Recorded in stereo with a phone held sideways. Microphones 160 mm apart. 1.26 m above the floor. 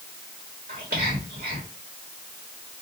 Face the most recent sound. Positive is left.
turn(degrees=-65)  # may be behind; listen again after turning